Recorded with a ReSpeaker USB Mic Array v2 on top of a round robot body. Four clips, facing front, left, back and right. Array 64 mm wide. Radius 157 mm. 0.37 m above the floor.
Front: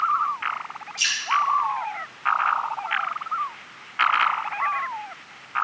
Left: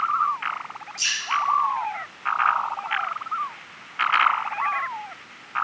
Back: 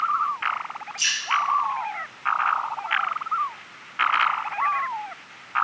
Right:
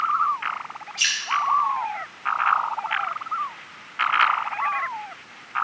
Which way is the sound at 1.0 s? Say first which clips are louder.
Right 3 dB, front 1 dB; 80° right.